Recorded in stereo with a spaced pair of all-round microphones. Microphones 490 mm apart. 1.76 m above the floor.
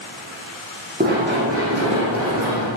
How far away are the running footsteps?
About 5 m.